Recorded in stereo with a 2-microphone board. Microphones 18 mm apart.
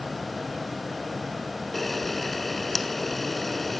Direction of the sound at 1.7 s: 10° left (ahead or behind).